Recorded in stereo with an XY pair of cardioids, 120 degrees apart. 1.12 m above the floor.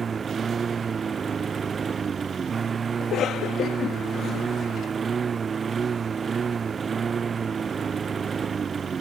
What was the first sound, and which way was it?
A lawn mower, 35° right.